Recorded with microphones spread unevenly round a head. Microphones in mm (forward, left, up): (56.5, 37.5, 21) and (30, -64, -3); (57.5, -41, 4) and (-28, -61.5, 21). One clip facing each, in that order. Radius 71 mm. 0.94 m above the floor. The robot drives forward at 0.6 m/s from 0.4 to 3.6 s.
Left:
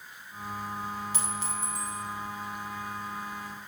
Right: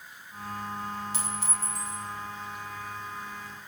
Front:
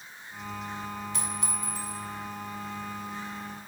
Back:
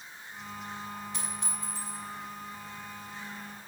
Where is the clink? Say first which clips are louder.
Left 1 dB, front 4 dB; 115° left, 4.5 m; by 2.0 s 120° left, 5 m.